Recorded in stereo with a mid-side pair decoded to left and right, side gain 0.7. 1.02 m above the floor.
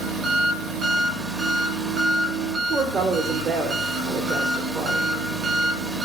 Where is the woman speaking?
40° right, 0.8 m.